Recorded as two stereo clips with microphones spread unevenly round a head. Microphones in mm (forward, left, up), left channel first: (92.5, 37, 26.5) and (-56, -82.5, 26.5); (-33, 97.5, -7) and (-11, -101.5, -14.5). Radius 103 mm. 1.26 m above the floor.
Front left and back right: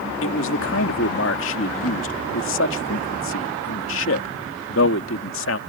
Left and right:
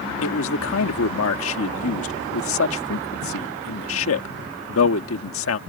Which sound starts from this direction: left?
A man speaking, at 0.2 s.